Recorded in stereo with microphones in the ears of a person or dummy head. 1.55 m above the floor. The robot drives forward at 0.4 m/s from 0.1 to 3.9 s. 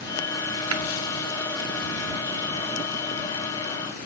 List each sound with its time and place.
0.7 s tapping: 85° right, 1.2 m